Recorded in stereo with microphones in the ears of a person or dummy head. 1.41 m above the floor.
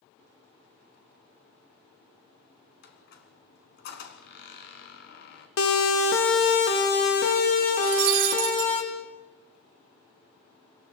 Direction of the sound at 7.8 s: 50° right (ahead or behind).